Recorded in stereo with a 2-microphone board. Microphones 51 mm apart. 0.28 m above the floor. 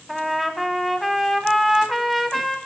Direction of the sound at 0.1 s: Centre (ahead or behind).